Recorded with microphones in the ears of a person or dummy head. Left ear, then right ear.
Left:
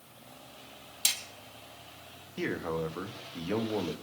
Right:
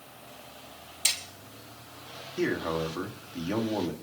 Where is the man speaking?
10° left (ahead or behind), 1.6 m.